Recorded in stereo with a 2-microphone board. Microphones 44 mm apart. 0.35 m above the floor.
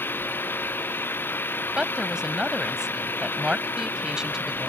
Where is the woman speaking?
15° right (ahead or behind).